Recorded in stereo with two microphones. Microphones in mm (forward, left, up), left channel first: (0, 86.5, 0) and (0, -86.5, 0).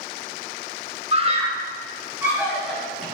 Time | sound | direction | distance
1.1 | a scream | 35° right (ahead or behind) | 1.1 m